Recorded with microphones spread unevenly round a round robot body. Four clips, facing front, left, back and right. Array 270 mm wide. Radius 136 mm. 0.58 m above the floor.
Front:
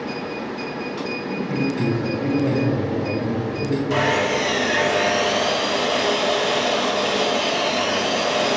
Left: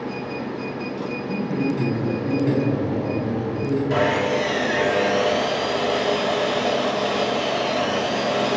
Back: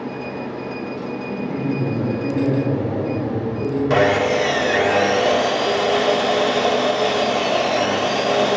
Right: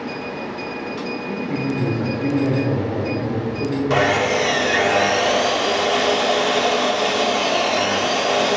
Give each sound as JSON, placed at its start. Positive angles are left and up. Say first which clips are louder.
{"t": 1.3, "sound": "a man speaking", "louder": "left 1 dB, even", "azimuth_deg": -95, "distance_m": 2.0}
{"t": 3.9, "sound": "sawing", "louder": "right 4 dB, back 5 dB", "azimuth_deg": -150, "distance_m": 0.6}